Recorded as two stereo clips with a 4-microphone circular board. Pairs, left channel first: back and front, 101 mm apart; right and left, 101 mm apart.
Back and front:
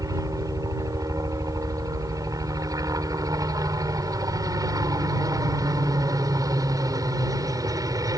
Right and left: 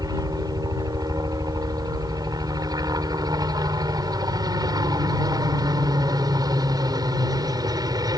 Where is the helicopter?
50° left.